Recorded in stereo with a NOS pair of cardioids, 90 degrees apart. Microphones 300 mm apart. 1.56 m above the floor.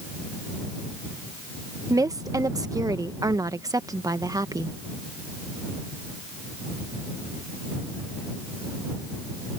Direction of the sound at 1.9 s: 10° right.